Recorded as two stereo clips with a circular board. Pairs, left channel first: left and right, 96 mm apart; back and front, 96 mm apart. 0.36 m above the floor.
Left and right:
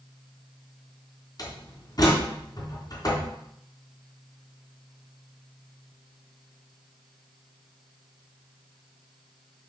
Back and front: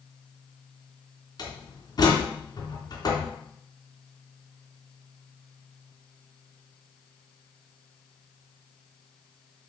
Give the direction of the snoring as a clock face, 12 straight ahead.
No snoring in this recording.